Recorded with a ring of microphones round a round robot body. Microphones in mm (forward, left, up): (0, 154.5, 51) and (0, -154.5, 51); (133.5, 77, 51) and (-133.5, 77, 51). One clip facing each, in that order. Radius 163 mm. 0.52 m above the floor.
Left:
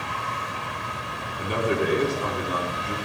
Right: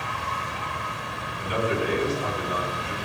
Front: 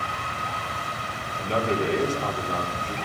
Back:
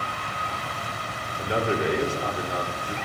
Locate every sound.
1.4 s a man speaking: 105° left, 1.4 m